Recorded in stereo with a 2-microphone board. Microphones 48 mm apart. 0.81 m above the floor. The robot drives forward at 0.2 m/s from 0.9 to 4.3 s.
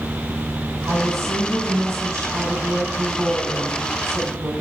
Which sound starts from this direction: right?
A woman speaking, at 0.9 s.